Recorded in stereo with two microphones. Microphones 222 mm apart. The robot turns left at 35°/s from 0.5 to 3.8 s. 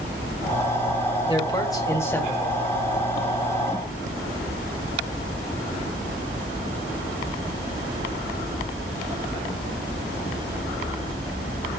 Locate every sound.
1.3 s a man speaking: 25° left (ahead or behind), 1.5 m; by 2.6 s centre (ahead or behind), 1.5 m